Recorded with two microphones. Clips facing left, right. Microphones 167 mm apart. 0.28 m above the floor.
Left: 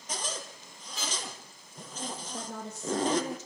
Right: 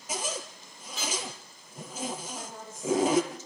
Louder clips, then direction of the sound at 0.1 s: Right 3 dB; 5° right (ahead or behind).